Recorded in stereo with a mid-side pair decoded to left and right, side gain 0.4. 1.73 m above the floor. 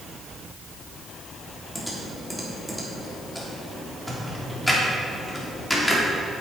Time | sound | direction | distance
1.8 | typing on a keyboard | 10° left | 3.5 m